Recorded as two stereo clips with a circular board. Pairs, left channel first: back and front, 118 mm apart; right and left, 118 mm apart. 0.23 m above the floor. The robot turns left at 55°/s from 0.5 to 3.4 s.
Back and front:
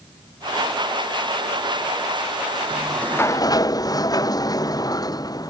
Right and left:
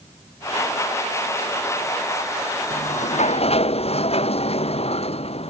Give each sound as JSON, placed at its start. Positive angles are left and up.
{"t": 2.7, "sound": "a sliding door", "azimuth_deg": -85}